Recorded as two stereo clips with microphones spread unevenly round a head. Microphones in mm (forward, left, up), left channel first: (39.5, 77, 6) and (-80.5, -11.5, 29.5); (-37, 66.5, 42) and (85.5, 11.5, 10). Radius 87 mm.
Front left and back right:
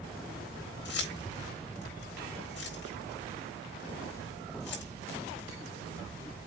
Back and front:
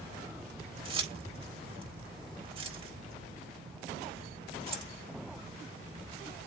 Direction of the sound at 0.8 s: 25° left.